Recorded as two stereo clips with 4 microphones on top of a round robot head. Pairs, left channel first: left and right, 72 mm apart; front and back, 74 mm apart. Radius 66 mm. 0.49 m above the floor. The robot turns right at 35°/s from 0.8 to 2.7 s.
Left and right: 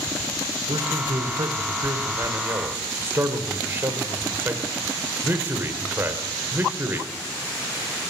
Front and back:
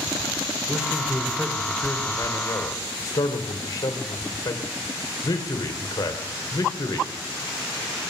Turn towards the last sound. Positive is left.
turn(degrees=-35)